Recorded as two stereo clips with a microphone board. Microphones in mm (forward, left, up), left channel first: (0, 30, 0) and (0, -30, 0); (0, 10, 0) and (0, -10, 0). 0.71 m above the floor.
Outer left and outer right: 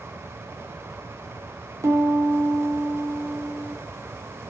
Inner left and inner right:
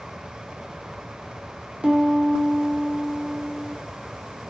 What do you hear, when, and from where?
1.8 s a piano: 65° right (ahead or behind), 3 m